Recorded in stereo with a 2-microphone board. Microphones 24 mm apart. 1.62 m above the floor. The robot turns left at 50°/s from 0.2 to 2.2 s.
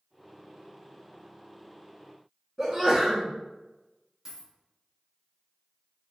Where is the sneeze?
15° right (ahead or behind), 1.8 m.